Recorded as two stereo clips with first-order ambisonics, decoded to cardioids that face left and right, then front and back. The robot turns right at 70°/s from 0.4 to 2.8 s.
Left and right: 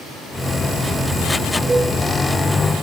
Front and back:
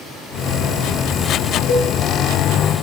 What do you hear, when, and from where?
1.7 s a cowbell: 15° right, 3.5 m; by 1.9 s straight ahead, 3.5 m